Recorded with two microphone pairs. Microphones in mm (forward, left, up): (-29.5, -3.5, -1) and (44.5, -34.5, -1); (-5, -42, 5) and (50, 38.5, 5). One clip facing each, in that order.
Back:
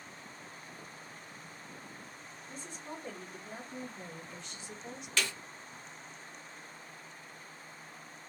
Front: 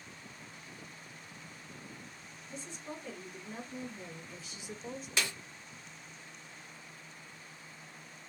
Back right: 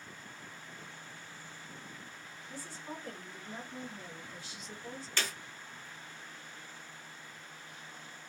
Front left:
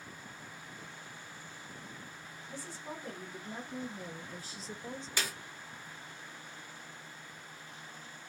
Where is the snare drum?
Straight ahead, 0.9 m.